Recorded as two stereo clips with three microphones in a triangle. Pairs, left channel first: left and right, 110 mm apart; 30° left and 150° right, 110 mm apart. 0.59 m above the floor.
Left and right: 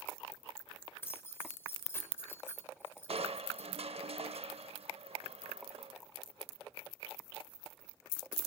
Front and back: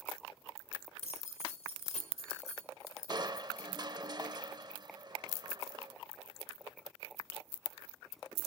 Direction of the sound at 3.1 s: 100° right.